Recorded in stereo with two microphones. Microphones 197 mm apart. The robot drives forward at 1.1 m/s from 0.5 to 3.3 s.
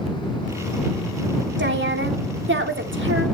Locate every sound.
1.6 s a woman speaking: 70° right (ahead or behind), 3.5 m; by 3.2 s 80° right, 3.5 m